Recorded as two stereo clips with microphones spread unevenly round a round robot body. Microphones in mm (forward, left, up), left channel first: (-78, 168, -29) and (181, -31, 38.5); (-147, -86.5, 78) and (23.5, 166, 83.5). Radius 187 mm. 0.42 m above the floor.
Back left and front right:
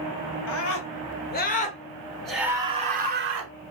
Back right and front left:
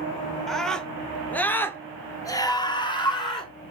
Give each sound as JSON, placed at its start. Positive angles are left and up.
{"t": 0.5, "sound": "a scream", "azimuth_deg": 150, "distance_m": 2.0}